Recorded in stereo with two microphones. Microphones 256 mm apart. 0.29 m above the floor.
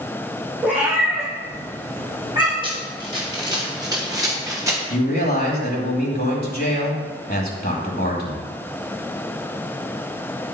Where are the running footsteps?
20° right (ahead or behind), 4.5 m; by 4.8 s 10° right (ahead or behind), 3.5 m.